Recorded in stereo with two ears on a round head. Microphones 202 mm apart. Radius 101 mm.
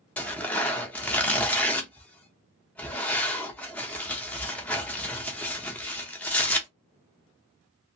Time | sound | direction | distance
0.2 | tearing paper | 5° left (ahead or behind) | 0.7 m